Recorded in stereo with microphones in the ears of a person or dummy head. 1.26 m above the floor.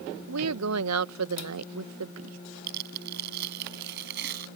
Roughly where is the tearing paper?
Right.